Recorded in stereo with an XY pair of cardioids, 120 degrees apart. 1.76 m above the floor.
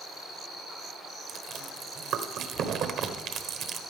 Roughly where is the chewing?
Ahead right.